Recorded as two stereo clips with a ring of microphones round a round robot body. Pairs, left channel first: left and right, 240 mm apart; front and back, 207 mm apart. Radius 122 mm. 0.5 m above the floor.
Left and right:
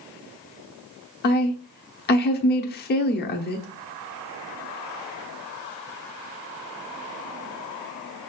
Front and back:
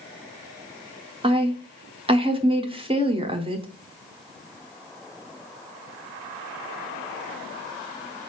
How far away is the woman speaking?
About 1.0 m.